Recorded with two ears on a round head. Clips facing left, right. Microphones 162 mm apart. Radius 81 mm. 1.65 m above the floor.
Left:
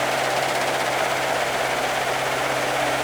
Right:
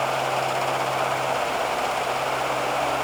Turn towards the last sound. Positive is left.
No sound to turn to.